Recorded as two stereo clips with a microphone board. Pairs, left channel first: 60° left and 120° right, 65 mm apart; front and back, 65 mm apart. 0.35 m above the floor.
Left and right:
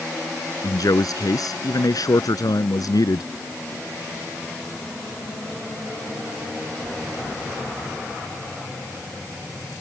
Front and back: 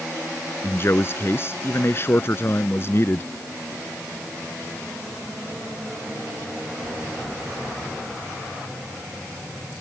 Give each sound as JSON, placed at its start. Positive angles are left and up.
{"t": 0.6, "sound": "a man speaking", "azimuth_deg": 50}